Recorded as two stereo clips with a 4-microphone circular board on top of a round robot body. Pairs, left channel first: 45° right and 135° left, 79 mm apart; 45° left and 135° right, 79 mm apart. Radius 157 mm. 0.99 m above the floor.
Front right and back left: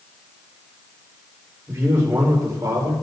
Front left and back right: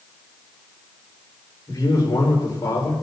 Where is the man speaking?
85° left, 5.5 m; by 2.9 s 95° left, 5 m.